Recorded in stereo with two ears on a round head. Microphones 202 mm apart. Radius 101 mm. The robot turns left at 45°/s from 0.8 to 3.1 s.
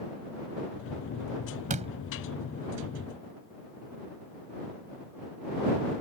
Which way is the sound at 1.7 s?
35° right (ahead or behind).